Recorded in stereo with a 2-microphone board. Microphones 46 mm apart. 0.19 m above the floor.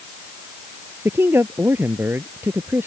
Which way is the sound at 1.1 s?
60° right (ahead or behind).